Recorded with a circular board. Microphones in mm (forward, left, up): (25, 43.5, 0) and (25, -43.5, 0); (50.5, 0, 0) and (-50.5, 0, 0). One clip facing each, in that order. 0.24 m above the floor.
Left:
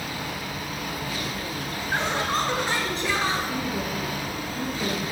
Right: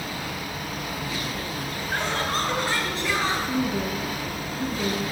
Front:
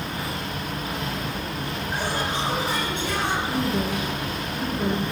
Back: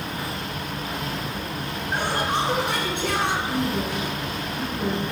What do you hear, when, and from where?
1.9 s laughter: 170° left, 2.5 m; by 3.4 s 170° right, 3 m
3.5 s a woman speaking: 60° right, 4 m